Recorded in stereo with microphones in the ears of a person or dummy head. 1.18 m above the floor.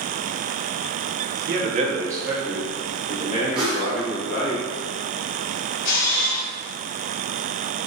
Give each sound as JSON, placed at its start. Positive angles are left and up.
{"t": 1.5, "sound": "a man speaking", "side_deg": -45, "distance_m": 0.6}
{"t": 3.5, "sound": "a whoosh", "side_deg": 0, "distance_m": 0.9}
{"t": 5.8, "sound": "a camera shutter", "side_deg": 60, "distance_m": 1.3}